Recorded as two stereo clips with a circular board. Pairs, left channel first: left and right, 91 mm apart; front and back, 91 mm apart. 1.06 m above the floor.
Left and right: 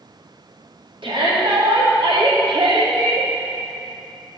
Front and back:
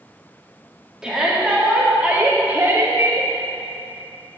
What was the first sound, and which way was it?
A shout, 95° right.